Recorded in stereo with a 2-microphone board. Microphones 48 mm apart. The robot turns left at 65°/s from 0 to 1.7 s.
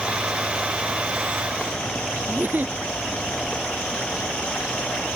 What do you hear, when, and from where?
2.3 s a giggle: 40° right (ahead or behind)